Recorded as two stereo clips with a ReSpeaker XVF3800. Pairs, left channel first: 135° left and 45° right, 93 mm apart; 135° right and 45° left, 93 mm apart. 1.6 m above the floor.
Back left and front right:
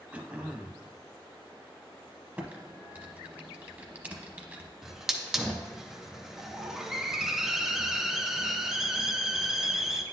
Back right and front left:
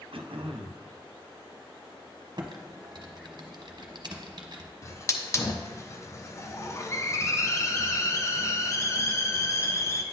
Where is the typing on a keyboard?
25° left, 0.7 m.